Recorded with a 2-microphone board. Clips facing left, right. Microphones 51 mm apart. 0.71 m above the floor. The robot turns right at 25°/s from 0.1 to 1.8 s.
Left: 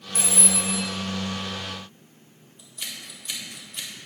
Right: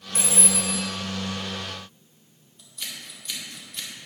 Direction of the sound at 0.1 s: 25° right (ahead or behind).